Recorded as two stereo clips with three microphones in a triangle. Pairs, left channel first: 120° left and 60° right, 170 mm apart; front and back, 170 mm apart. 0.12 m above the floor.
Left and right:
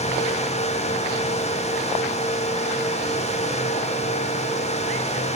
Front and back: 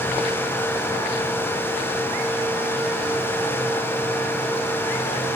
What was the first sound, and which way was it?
Only background noise.